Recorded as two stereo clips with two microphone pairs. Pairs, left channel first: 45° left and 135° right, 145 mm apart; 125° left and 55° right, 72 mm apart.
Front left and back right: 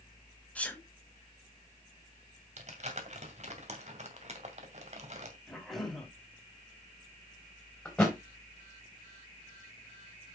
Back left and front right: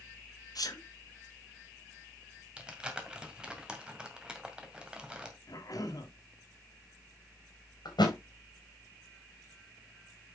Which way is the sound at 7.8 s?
130° left.